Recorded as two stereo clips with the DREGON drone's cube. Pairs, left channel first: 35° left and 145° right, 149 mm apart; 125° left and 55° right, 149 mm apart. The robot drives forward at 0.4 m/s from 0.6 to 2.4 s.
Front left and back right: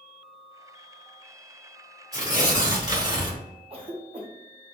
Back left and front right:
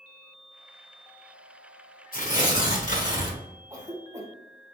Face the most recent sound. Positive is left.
turn(degrees=-115)